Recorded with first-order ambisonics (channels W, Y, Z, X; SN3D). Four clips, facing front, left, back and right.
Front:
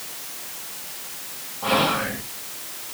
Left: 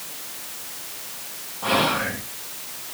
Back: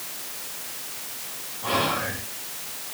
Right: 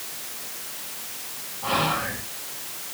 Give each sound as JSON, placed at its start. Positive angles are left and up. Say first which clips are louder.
{"t": 1.6, "sound": "whispering", "louder": "left 3 dB, front 4 dB", "azimuth_deg": 45, "distance_m": 1.8}